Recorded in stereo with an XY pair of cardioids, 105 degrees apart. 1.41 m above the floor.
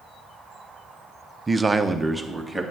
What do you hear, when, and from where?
1.5 s a man speaking: 25° right, 0.8 m; by 2.6 s 5° right, 2.5 m